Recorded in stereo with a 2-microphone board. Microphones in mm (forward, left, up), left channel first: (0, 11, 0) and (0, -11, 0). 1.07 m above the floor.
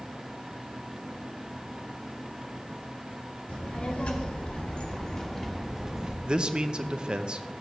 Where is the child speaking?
80° left, 3 m; by 6.2 s 25° right (ahead or behind), 1.7 m.